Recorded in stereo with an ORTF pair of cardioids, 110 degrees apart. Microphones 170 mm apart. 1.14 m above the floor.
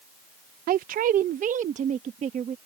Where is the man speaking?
60° right; by 2.6 s 45° right.